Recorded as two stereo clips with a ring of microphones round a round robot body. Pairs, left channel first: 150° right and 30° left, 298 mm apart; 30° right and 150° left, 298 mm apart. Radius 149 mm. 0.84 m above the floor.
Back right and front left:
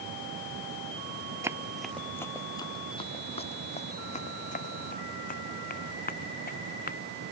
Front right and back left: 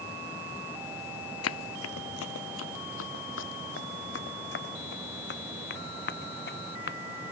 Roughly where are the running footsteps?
Ahead right.